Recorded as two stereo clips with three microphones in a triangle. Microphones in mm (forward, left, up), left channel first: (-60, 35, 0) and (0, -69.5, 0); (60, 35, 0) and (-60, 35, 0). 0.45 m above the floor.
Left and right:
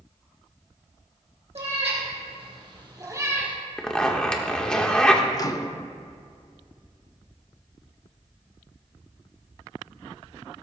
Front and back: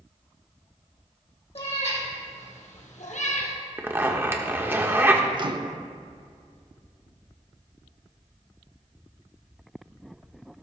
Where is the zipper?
175° right, 1.2 m.